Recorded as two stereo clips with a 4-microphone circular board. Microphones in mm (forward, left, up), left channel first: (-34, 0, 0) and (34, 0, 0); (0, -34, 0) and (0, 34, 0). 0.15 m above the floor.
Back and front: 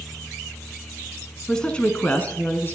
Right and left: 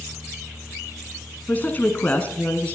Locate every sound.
1.5 s a woman speaking: 115° right, 1.3 m; by 2.8 s 150° right, 1.6 m